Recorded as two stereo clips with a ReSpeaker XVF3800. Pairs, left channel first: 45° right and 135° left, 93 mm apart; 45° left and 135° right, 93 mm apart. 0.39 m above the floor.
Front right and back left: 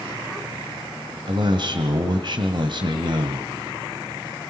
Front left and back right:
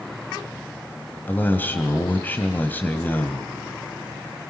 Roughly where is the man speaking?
Behind left.